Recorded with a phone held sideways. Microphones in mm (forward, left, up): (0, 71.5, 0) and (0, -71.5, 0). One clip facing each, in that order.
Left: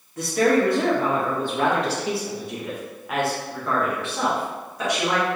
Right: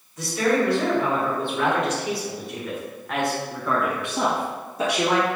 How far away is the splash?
No splash in this recording.